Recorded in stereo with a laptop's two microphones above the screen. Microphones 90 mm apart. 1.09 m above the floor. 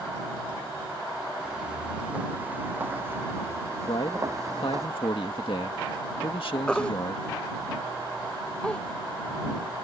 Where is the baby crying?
10° left (ahead or behind).